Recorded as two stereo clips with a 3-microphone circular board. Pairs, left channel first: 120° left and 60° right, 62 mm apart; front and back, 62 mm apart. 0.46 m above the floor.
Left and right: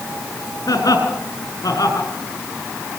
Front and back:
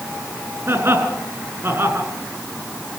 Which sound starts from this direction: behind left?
Laughter, at 0.7 s.